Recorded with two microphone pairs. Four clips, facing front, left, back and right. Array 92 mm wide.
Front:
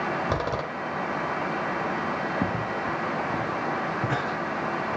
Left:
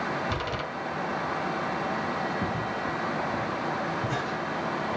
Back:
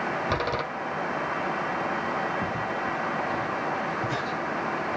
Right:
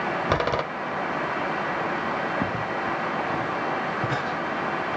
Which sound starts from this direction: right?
A door slam, at 0.3 s.